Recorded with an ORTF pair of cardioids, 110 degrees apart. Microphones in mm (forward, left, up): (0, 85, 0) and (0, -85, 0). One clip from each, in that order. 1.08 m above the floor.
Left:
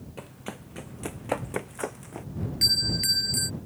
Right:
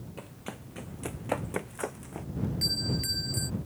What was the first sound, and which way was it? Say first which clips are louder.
Running footsteps: left 3 dB; 20° left.